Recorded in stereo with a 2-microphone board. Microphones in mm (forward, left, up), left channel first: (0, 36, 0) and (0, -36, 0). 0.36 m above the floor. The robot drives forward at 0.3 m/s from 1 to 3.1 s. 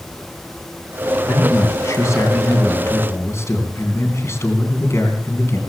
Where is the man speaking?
45° left (ahead or behind), 2.5 m; by 5.6 s 40° left (ahead or behind), 3 m.